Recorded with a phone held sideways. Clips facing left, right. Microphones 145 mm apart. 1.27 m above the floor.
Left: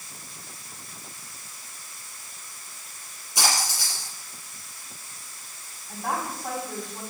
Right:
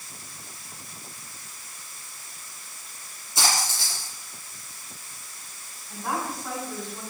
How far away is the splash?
About 7.5 m.